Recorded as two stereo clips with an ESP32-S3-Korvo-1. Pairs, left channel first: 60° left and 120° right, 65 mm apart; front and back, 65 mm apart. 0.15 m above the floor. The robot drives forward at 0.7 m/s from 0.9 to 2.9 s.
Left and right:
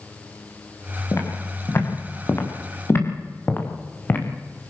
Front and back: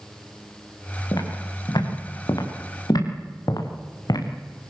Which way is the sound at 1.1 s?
15° left.